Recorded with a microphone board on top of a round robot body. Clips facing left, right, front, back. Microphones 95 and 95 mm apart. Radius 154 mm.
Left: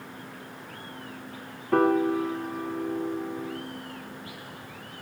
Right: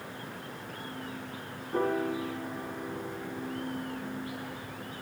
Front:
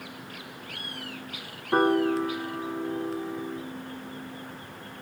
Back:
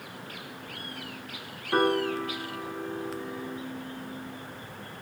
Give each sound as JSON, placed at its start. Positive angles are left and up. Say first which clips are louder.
{"t": 1.7, "sound": "a piano", "louder": "left 8 dB, front 3 dB", "azimuth_deg": 70, "distance_m": 2.5}